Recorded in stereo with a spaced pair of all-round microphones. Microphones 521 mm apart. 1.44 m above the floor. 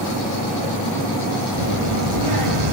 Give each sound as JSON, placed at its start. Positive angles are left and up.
{"t": 1.5, "sound": "a child speaking", "side_deg": -75, "distance_m": 3.0}